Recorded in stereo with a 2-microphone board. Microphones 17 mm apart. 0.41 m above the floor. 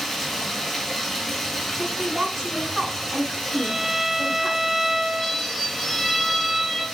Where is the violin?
Centre (ahead or behind), 4.5 m.